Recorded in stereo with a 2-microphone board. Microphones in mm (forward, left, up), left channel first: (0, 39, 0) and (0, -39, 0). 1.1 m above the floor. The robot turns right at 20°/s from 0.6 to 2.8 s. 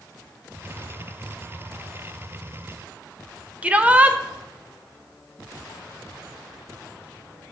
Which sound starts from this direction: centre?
A shout, at 3.6 s.